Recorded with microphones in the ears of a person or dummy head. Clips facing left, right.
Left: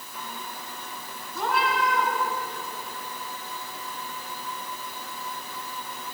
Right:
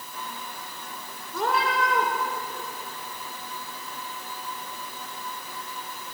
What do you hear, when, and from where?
1.3 s a cat meowing: 60° right (ahead or behind), 1.9 m